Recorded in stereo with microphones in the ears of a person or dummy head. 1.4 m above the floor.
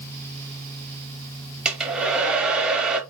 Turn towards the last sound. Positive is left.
turn(degrees=-10)  # may be behind; listen again after turning